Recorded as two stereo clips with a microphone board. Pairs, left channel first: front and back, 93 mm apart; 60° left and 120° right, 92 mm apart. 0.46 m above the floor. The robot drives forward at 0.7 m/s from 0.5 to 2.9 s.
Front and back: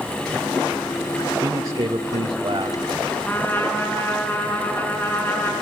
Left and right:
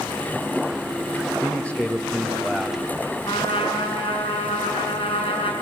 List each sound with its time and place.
1.3 s a man speaking: 130° left, 1.7 m; by 2.8 s 150° left, 2.5 m
3.2 s a trumpet: 65° left, 5.5 m